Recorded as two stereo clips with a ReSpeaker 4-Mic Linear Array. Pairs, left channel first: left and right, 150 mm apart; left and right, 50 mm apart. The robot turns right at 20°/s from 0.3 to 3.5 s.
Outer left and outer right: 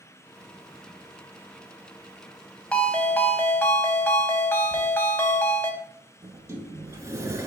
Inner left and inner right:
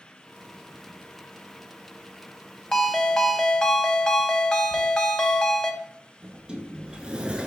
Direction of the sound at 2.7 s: 10° left (ahead or behind).